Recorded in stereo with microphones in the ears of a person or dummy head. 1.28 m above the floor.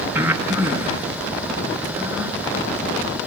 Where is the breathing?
10° right (ahead or behind), 1.1 m.